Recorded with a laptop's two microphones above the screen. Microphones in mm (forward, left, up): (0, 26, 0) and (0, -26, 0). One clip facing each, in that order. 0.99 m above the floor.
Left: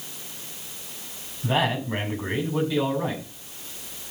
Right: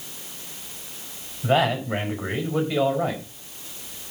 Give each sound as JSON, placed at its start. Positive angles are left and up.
{"t": 1.4, "sound": "a man speaking", "side_deg": -45, "distance_m": 5.5}